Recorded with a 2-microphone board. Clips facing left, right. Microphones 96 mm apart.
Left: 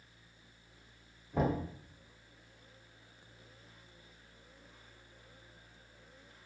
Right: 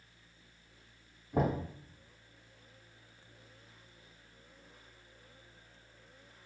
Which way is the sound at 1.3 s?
50° right (ahead or behind).